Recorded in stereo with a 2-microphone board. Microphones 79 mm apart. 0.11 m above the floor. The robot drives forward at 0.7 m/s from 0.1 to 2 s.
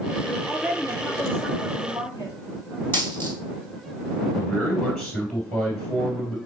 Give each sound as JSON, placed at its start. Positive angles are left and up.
{"t": 0.5, "sound": "a woman speaking", "side_deg": 45, "distance_m": 2.5}
{"t": 2.9, "sound": "a dropped coin", "side_deg": 25, "distance_m": 1.7}
{"t": 4.3, "sound": "a man speaking", "side_deg": 5, "distance_m": 2.5}